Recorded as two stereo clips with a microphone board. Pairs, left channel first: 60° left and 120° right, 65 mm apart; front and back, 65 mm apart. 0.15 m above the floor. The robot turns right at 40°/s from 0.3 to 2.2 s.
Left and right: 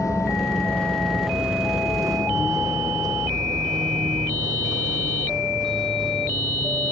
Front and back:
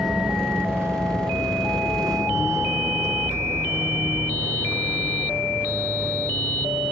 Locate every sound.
0.0 s a vehicle: 95° left; by 6.9 s 110° right